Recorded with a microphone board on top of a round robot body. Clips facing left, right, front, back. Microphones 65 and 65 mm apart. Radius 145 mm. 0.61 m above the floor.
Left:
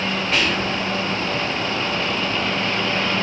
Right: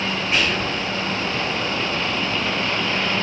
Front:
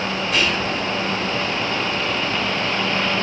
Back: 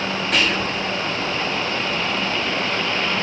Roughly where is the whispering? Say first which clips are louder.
Even, even; behind.